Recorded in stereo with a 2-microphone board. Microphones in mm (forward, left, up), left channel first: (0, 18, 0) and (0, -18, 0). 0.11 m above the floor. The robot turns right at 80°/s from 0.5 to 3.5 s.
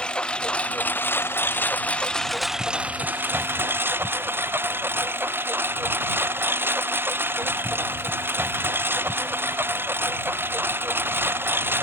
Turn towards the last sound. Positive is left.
turn(degrees=-90)